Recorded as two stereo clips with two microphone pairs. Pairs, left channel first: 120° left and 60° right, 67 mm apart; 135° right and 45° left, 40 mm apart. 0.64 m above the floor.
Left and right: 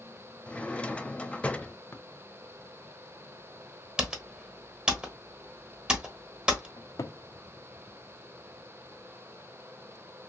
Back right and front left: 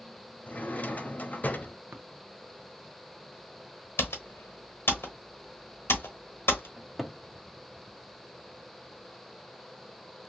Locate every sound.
0.5 s a drawer: 165° right, 0.5 m
1.9 s tapping: 65° left, 0.7 m
4.0 s typing on a keyboard: 135° right, 1.0 m
6.8 s a cupboard door: 135° left, 0.5 m